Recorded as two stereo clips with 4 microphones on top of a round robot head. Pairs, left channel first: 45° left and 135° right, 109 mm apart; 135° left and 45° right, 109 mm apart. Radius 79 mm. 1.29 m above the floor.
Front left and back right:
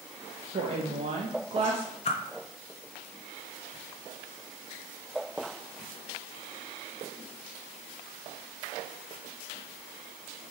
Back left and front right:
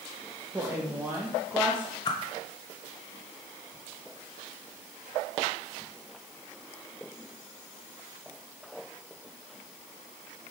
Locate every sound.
0.5 s a woman speaking: 120° right, 0.6 m
2.0 s a whoosh: 80° left, 0.5 m